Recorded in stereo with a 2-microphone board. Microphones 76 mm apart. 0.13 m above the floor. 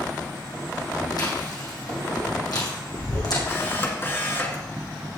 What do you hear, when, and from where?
1.2 s chewing: 60° left (ahead or behind), 3.5 m
3.5 s a camera shutter: 30° left (ahead or behind), 2 m